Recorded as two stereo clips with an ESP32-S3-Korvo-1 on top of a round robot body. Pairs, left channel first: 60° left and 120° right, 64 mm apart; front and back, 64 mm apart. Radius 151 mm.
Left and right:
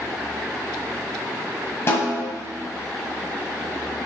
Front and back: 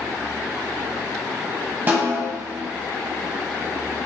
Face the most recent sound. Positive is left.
turn(degrees=115)